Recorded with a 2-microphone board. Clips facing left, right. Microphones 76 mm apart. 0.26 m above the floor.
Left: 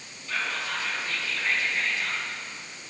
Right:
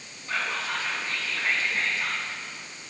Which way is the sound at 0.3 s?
35° right (ahead or behind).